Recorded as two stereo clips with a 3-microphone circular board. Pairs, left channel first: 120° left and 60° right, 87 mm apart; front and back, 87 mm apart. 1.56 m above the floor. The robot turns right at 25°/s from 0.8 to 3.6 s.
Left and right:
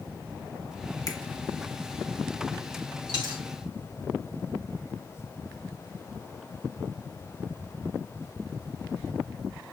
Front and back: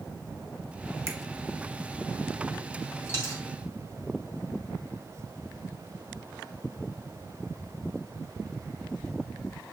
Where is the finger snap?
140° left, 0.9 m; by 1.2 s 145° left, 0.9 m.